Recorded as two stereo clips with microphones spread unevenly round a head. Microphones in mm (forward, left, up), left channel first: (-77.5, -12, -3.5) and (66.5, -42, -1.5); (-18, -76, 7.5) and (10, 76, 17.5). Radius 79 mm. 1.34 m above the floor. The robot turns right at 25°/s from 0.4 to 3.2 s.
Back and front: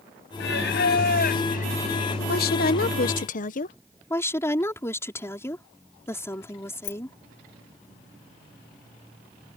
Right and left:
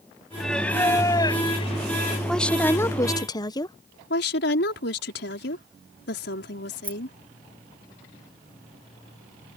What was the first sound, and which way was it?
Singing, 170° left.